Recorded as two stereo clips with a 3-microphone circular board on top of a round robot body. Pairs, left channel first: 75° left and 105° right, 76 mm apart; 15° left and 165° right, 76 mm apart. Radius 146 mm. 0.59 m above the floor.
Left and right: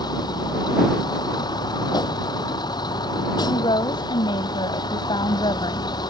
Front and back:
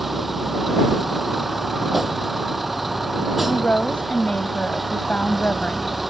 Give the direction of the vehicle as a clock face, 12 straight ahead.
8 o'clock.